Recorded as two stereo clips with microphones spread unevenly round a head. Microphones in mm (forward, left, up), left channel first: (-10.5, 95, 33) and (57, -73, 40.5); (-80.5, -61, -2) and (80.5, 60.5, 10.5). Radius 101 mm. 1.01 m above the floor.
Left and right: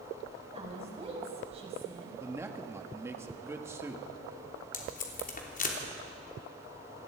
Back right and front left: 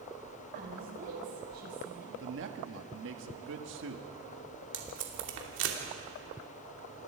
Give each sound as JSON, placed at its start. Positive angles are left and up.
{"t": 0.5, "sound": "a woman speaking", "azimuth_deg": -10, "distance_m": 5.5}
{"t": 2.2, "sound": "a man speaking", "azimuth_deg": 10, "distance_m": 2.0}
{"t": 4.7, "sound": "tape being pulled", "azimuth_deg": 70, "distance_m": 3.0}